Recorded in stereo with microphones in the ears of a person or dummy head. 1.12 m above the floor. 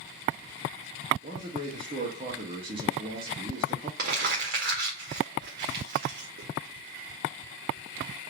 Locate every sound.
1.2 s a man speaking: 25° right (ahead or behind), 0.6 m
4.0 s crumpling: 60° right (ahead or behind), 0.8 m